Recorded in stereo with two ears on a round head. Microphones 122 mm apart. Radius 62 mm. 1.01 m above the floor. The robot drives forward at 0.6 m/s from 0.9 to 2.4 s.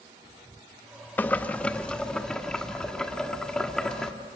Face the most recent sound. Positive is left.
turn(degrees=5)  # may be behind; listen again after turning